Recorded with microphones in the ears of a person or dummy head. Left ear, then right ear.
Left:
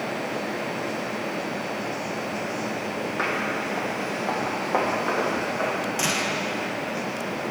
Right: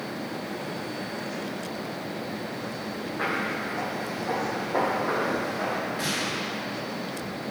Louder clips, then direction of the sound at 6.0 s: Left 4 dB; 50° left (ahead or behind).